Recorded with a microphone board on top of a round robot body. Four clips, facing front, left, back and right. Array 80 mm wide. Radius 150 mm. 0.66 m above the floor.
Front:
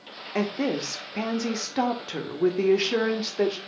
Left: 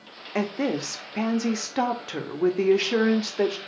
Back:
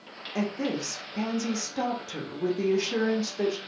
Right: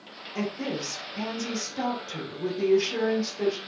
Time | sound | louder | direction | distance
0.3 | a woman speaking | left 5 dB, front 3 dB | 60° left | 1.1 m